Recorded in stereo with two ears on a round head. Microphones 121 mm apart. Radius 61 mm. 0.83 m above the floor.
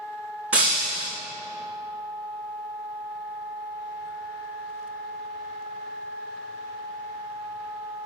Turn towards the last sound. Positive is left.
turn(degrees=-10)  # may be behind; listen again after turning